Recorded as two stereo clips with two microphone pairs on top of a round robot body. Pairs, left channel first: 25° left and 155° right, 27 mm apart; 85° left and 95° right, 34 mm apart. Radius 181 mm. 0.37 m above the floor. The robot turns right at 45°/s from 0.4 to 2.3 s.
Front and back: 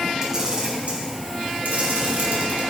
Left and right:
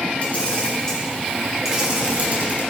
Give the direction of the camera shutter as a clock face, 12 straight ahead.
7 o'clock.